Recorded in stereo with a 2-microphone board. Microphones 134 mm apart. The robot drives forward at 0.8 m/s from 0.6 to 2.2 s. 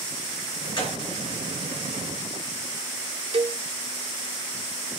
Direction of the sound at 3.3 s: 45° right (ahead or behind).